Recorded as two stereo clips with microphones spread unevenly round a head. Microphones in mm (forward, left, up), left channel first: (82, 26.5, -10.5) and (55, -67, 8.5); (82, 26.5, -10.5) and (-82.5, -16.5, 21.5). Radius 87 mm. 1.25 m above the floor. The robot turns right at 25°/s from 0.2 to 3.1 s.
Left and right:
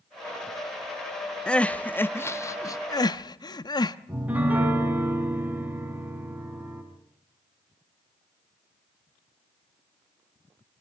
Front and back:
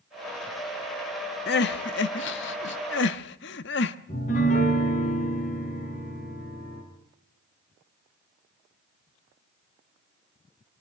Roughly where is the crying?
Ahead.